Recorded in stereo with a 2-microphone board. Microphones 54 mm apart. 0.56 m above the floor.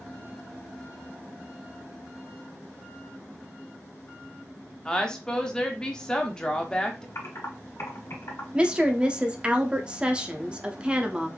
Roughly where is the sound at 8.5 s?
Centre.